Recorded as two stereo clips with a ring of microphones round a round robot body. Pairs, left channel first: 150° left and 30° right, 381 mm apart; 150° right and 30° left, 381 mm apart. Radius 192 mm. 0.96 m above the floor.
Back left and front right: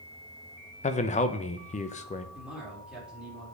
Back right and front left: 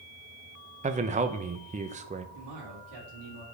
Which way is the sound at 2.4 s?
60° left.